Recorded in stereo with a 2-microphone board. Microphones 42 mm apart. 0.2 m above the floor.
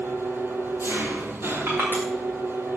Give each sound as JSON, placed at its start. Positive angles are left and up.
{"t": 0.0, "sound": "an engine running", "side_deg": -75, "distance_m": 1.6}
{"t": 1.7, "sound": "crushing", "side_deg": -60, "distance_m": 7.0}